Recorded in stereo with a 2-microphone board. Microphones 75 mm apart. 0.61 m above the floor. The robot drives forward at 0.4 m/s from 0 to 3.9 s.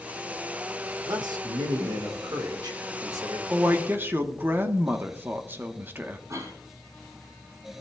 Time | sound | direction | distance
1.1 | a man speaking | 65° right (ahead or behind) | 1.4 m
3.5 | a woman speaking | 30° right (ahead or behind) | 0.8 m
6.3 | a cough | 45° right (ahead or behind) | 4 m